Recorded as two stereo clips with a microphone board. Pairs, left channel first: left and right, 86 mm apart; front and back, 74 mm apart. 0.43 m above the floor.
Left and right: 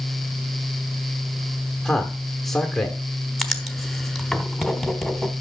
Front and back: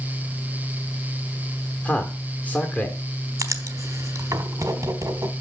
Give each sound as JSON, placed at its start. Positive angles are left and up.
{"t": 1.9, "sound": "a man speaking", "azimuth_deg": 10, "distance_m": 1.2}
{"t": 3.4, "sound": "writing", "azimuth_deg": 180, "distance_m": 1.1}